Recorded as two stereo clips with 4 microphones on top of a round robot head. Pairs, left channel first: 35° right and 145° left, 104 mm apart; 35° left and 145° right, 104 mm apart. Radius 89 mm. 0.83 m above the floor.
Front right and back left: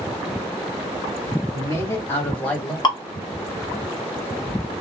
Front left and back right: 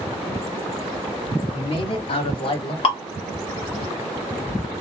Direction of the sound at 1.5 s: 20° left.